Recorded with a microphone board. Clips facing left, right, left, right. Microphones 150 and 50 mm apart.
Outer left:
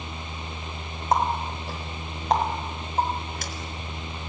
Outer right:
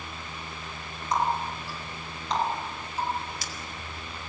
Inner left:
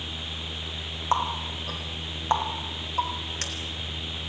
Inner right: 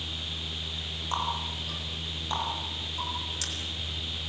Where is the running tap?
50° left (ahead or behind), 4.5 m.